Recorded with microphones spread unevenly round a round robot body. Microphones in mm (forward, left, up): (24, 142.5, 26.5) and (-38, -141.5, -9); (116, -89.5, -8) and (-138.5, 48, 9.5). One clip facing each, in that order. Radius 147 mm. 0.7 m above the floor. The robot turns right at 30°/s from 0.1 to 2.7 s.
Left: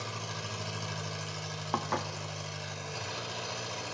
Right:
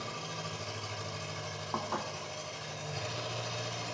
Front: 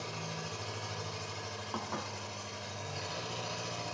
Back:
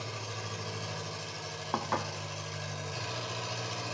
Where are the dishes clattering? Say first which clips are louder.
Left 3 dB, back 6 dB; 120° left, 0.6 m; by 2.1 s 130° left, 0.6 m.